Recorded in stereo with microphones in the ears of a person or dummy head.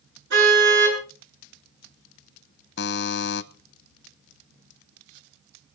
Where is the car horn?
70° right (ahead or behind), 8 m.